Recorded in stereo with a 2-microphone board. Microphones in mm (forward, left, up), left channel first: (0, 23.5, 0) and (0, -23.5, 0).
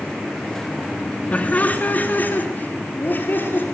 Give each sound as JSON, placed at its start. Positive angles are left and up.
{"t": 1.3, "sound": "laughter", "side_deg": 30, "distance_m": 2.5}